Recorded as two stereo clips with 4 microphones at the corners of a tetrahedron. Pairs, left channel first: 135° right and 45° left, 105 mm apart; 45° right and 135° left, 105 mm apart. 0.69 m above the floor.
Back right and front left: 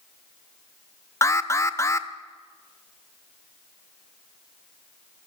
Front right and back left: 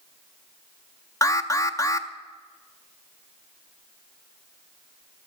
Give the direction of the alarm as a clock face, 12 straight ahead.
3 o'clock.